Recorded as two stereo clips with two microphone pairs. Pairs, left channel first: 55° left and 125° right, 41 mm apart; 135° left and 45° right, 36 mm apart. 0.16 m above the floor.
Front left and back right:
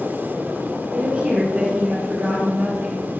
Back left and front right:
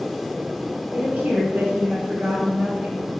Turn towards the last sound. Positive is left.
turn(degrees=-75)